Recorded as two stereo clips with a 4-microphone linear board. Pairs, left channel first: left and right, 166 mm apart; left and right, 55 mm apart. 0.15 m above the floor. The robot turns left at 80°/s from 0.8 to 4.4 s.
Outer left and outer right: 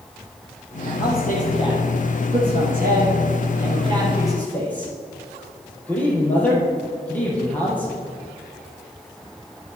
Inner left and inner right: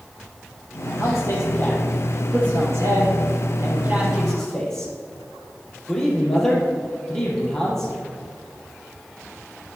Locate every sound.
1.0 s a man speaking: 75° left (ahead or behind), 3.5 m; by 7.9 s 10° left (ahead or behind), 3.5 m